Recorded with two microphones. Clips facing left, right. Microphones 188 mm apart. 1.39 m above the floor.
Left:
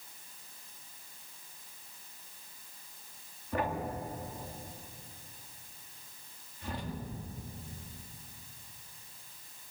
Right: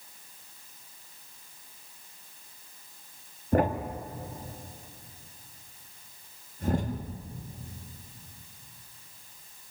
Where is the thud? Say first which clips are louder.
Right 8 dB; 45° right (ahead or behind), 1.2 m.